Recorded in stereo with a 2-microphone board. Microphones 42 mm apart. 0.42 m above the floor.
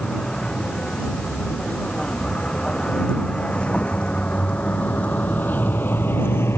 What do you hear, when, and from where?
0.0 s a vehicle: 20° left (ahead or behind); by 6.6 s 80° left